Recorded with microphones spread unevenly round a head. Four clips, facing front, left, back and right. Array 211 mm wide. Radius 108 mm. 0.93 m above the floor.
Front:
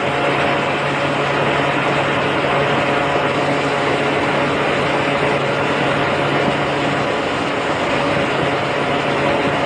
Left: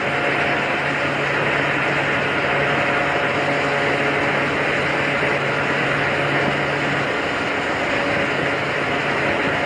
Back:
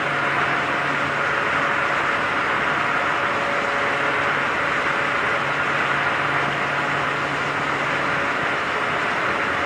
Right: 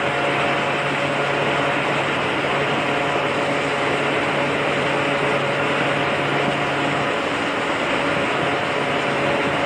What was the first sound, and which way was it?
Only background noise.